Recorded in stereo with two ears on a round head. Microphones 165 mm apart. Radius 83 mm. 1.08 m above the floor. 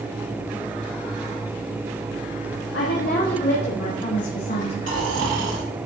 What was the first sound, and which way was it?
A woman speaking, 60° left (ahead or behind).